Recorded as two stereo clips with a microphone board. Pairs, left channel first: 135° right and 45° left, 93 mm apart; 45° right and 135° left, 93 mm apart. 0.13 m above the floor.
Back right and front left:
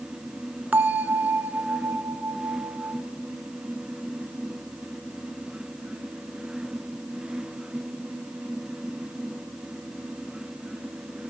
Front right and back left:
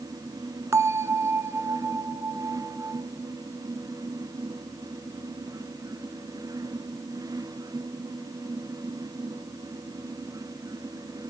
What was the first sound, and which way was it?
A bell, 105° left.